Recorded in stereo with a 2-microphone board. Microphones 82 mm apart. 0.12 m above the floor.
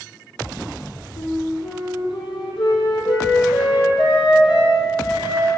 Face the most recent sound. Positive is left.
turn(degrees=65)  # may be behind; listen again after turning